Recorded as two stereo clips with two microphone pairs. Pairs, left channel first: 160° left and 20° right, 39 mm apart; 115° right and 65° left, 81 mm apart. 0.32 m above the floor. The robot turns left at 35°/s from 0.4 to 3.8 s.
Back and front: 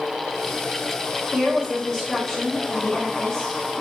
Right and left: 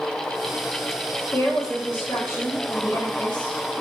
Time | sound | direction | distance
1.3 | a woman speaking | 95° right | 1.1 m